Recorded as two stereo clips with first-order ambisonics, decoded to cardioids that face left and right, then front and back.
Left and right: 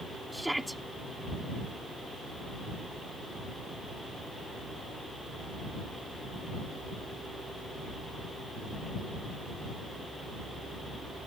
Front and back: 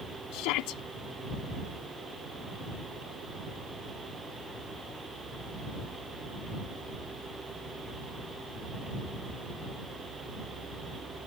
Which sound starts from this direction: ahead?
A shout, at 0.3 s.